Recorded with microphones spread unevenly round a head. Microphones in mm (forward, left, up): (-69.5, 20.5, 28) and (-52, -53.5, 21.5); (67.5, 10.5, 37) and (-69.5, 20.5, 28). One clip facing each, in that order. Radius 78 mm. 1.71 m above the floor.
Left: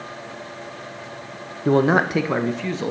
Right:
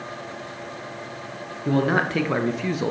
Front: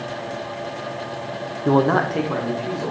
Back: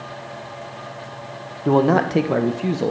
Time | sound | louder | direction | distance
1.6 | a man speaking | left 4 dB, back 1 dB | 80° left | 0.6 m